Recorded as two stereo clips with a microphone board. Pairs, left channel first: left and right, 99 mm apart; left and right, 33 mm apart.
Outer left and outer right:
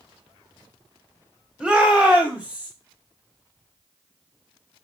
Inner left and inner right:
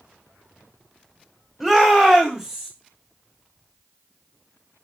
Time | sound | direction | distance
1.6 | a shout | 5° right (ahead or behind) | 2 m